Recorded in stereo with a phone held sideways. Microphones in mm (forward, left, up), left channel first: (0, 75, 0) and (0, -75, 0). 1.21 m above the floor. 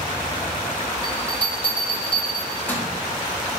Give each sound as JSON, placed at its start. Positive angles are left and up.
{"t": 1.0, "sound": "a bell", "side_deg": 15, "distance_m": 2.5}